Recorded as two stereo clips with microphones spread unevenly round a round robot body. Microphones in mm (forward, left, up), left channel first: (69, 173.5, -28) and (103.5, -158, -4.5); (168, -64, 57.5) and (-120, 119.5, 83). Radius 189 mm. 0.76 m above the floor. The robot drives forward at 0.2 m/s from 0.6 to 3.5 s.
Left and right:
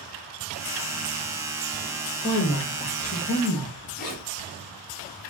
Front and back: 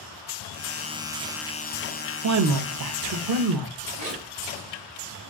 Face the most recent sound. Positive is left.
turn(degrees=145)